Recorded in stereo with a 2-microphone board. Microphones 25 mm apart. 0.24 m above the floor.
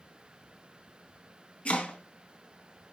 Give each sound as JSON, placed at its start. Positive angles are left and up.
{"t": 1.6, "sound": "chopping", "side_deg": 55, "distance_m": 2.5}